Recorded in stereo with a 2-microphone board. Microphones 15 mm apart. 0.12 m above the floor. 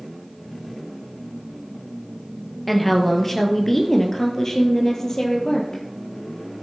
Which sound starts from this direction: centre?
A woman speaking, at 2.7 s.